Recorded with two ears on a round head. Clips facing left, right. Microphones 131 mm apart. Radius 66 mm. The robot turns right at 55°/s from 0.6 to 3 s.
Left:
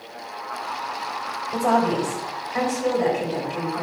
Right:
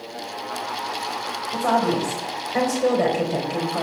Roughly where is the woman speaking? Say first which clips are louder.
Left 1 dB; behind.